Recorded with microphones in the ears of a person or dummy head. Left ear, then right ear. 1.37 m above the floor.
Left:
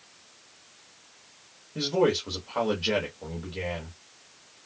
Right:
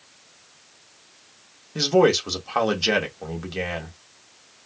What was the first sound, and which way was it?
A man speaking, 75° right (ahead or behind).